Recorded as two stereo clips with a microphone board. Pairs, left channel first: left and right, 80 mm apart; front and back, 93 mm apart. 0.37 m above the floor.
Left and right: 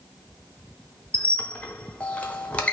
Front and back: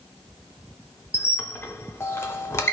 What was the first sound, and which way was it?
A squeak, 30° left.